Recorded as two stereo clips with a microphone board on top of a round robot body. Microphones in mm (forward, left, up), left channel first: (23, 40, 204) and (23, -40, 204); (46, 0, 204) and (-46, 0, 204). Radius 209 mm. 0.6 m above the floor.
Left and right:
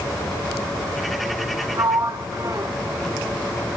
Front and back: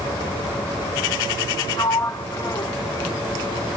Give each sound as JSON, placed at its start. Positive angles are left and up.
{"t": 1.8, "sound": "a sliding door", "azimuth_deg": -50, "distance_m": 0.9}